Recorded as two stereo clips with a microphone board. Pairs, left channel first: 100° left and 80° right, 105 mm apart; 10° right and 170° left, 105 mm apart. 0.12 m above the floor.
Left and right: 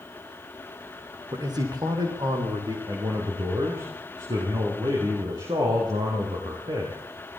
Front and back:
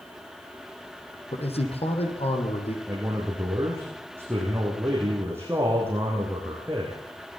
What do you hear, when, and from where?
1.3 s a man speaking: 30° right, 5.5 m
2.9 s a man speaking: 125° right, 6.5 m